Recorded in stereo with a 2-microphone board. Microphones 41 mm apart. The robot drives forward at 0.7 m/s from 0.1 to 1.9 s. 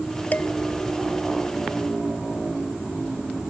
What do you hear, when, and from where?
0.3 s dishes clattering: 45° left (ahead or behind)